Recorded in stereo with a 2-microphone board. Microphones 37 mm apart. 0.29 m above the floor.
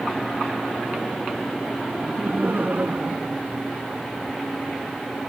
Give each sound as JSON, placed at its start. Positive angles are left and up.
{"t": 1.9, "sound": "laughter", "side_deg": -50}